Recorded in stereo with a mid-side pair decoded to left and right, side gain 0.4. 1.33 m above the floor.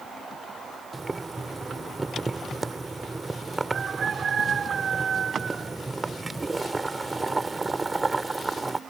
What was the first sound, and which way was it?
Boiling, 25° right.